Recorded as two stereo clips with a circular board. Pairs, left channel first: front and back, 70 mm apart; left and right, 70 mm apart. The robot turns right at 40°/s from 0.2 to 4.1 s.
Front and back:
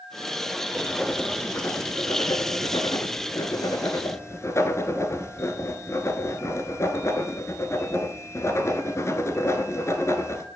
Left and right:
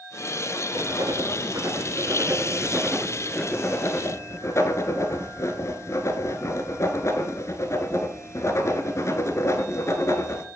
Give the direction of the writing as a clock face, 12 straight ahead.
3 o'clock.